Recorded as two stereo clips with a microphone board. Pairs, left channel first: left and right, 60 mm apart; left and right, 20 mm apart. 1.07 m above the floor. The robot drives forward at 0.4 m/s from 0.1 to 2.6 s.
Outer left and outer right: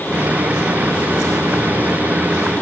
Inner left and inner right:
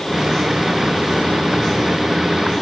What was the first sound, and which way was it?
Only background noise.